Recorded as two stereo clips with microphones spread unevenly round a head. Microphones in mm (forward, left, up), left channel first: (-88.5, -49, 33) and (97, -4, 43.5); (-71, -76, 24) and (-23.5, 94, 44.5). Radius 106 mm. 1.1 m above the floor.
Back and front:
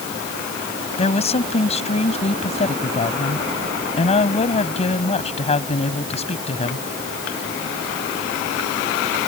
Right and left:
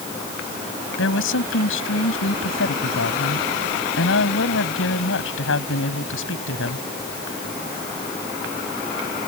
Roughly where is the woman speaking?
Right.